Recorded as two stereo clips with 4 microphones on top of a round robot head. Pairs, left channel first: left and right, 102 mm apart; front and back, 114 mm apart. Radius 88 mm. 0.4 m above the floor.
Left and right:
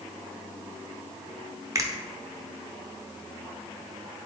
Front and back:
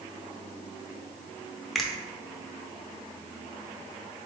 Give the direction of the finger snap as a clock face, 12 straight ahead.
3 o'clock.